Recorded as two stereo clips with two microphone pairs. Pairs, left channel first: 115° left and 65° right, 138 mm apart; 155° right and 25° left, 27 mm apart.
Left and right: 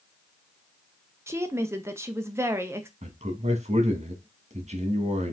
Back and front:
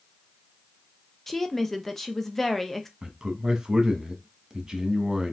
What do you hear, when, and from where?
1.3 s a woman speaking: 95° right, 0.6 m
3.0 s a man speaking: 40° right, 1.2 m